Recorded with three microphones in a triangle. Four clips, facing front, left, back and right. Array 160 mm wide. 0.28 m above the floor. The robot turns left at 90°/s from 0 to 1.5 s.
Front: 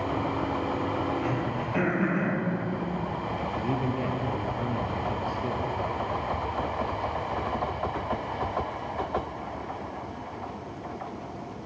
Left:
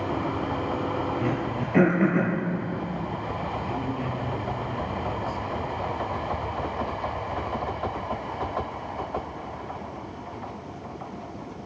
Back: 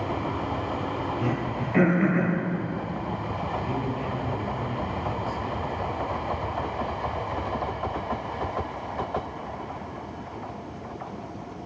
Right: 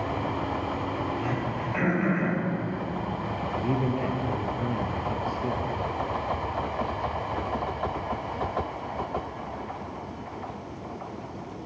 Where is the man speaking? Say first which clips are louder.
Right 3 dB, front 2 dB; 60° right, 4.5 m.